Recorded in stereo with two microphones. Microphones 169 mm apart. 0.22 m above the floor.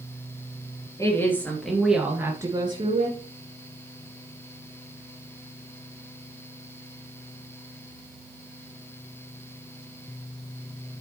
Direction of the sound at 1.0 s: 20° left (ahead or behind).